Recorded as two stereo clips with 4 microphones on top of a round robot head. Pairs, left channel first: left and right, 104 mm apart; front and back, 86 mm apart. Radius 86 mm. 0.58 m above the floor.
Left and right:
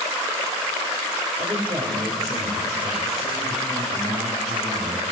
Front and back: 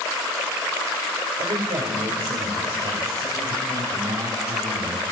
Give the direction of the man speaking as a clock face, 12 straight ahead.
4 o'clock.